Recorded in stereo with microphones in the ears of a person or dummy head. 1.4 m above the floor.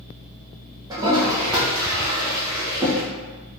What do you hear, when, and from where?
0.9 s a toilet flushing: 20° right (ahead or behind), 1.0 m